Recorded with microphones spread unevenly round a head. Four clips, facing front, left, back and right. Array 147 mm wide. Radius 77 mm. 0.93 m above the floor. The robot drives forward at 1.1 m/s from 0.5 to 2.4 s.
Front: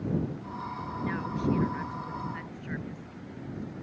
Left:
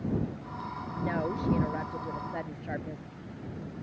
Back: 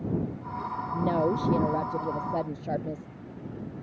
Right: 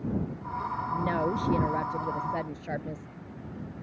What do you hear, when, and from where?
0.9 s a woman speaking: 165° right; by 3.1 s 170° right